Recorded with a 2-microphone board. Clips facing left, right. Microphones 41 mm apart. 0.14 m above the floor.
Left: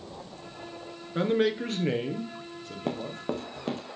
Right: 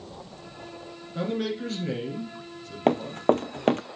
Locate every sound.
1.1 s a man speaking: 45° left (ahead or behind), 1.4 m; by 3.2 s 30° left (ahead or behind), 3.5 m
2.9 s running footsteps: 60° right (ahead or behind), 0.6 m